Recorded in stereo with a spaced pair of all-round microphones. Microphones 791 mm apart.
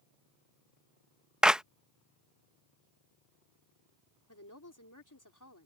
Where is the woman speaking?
25° left (ahead or behind).